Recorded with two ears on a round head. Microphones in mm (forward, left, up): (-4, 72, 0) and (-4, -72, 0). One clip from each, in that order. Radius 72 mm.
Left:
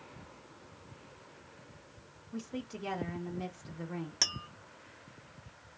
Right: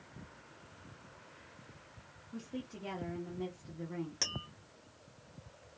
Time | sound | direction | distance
2.3 | a woman speaking | 35° left (ahead or behind) | 0.9 m
4.2 | tapping | 20° left (ahead or behind) | 0.8 m